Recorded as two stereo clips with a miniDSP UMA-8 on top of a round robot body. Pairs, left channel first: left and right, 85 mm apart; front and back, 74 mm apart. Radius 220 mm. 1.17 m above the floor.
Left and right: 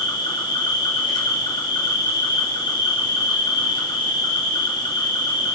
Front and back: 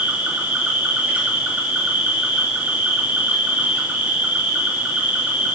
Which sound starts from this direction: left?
An insect, at 0.0 s.